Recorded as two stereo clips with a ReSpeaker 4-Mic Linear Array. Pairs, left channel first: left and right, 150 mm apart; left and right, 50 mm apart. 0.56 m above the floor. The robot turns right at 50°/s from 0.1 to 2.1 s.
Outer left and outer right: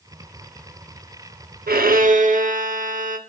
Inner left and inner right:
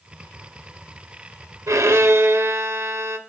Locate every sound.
1.7 s a violin: 80° right, 0.5 m; by 3.2 s 60° right (ahead or behind), 0.5 m